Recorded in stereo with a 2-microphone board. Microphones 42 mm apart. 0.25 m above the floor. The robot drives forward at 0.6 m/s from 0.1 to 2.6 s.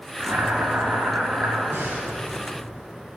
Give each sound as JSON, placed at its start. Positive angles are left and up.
{"t": 0.2, "sound": "boiling", "side_deg": -60, "distance_m": 2.5}
{"t": 1.7, "sound": "breathing", "side_deg": -60, "distance_m": 3.0}